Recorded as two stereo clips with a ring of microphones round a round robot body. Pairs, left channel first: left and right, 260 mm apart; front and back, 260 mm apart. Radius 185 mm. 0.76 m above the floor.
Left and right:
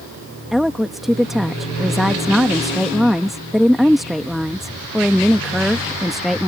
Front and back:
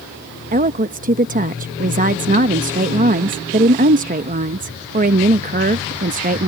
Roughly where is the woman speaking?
Behind.